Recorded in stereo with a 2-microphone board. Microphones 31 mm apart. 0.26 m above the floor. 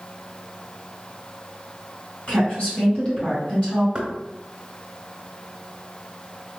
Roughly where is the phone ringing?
I don't hear a phone ringing.